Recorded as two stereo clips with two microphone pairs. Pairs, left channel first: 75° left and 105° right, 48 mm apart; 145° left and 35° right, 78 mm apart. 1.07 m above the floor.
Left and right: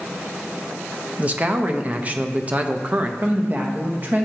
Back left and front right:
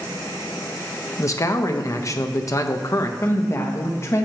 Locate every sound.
1.2 s a man speaking: 165° right, 0.5 m
3.2 s a woman speaking: 160° right, 0.8 m